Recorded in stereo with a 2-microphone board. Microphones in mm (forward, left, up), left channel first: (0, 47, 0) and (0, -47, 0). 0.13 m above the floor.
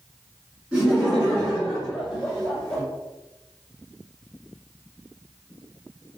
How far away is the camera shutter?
No camera shutter in this recording.